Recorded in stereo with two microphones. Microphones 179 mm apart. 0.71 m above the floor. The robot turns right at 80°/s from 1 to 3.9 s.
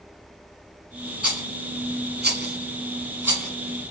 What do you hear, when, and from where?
1.2 s a rattle: 5° right (ahead or behind), 1.9 m; by 3.9 s 40° left (ahead or behind), 1.9 m